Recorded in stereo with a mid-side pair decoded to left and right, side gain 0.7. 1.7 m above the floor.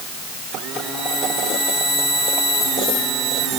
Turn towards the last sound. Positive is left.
No sound to turn to.